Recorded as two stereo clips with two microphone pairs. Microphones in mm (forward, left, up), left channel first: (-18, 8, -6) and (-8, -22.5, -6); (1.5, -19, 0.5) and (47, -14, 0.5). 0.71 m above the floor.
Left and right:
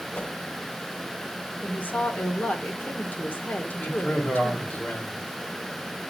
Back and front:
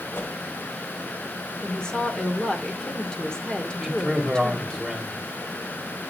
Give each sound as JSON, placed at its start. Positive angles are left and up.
{"t": 0.1, "sound": "a whoosh", "azimuth_deg": 150, "distance_m": 2.5}
{"t": 1.6, "sound": "a woman speaking", "azimuth_deg": 115, "distance_m": 1.8}
{"t": 3.8, "sound": "a man speaking", "azimuth_deg": 100, "distance_m": 2.5}